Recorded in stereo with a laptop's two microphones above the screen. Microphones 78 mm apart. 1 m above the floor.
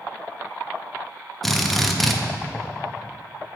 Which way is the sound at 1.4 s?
Centre (ahead or behind).